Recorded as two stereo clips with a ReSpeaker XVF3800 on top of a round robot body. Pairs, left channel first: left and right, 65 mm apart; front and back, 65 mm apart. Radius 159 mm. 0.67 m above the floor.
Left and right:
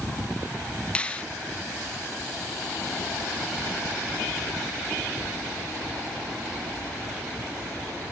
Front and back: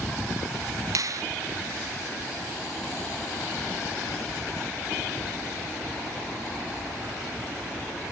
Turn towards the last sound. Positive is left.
turn(degrees=160)